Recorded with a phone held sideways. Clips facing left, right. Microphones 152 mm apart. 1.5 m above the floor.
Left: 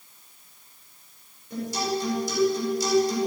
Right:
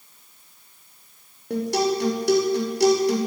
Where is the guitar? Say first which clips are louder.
Right 6 dB; 70° right (ahead or behind), 5 m.